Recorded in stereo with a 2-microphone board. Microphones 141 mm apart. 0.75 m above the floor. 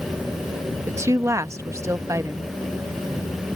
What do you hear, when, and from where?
0.9 s a woman speaking: 20° right (ahead or behind)